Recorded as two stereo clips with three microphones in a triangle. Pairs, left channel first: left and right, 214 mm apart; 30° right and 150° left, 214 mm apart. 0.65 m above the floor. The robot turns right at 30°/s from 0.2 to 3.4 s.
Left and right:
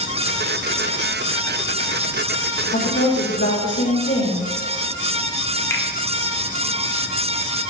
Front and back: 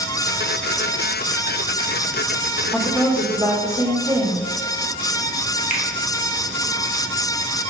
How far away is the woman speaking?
About 2 m.